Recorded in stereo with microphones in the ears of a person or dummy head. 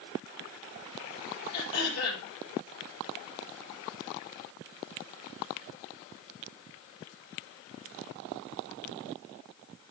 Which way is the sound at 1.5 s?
85° left.